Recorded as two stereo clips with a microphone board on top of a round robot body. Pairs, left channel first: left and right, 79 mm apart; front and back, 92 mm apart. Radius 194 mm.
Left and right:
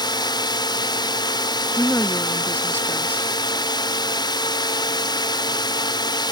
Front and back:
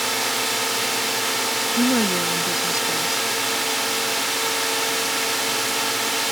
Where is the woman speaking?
30° left.